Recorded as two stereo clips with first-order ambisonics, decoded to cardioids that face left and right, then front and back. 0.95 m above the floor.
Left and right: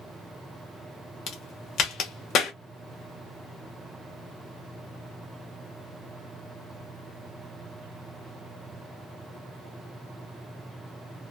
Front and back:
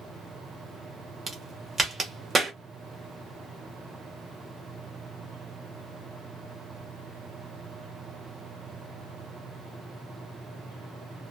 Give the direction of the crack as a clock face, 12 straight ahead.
8 o'clock.